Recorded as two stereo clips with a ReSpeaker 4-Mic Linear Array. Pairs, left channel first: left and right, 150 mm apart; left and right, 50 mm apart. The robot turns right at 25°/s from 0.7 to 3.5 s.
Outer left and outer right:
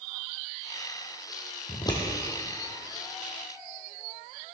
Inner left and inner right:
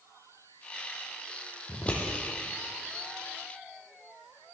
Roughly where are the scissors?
Left.